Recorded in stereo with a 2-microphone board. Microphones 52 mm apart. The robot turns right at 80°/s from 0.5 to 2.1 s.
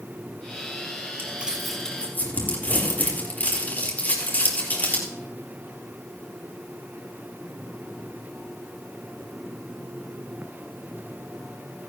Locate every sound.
1.2 s crumpling: 35° right (ahead or behind), 3.5 m; by 5.1 s 35° left (ahead or behind), 3.5 m